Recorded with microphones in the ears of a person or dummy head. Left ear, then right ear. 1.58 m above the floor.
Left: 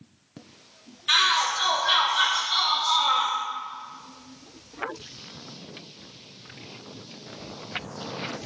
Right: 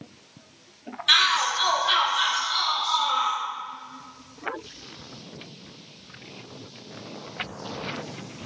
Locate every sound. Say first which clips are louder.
1.1 s a shout: right 1 dB; 20° right (ahead or behind), 1.2 m; by 3.4 s 45° left (ahead or behind), 0.8 m